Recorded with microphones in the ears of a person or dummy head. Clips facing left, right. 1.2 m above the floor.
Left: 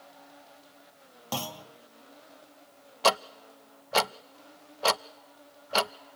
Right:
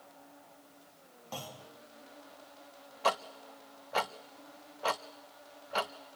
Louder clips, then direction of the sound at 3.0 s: Left 6 dB; 55° left (ahead or behind).